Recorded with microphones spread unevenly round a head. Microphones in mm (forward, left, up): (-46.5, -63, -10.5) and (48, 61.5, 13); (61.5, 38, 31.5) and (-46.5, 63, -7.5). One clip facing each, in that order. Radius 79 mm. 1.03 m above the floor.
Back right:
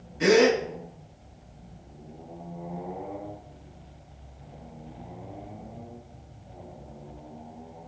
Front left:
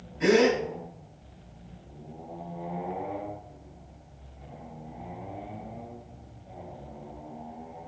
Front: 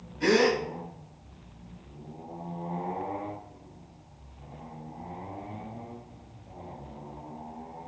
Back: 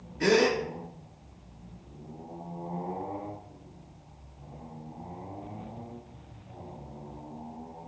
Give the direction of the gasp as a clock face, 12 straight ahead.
5 o'clock.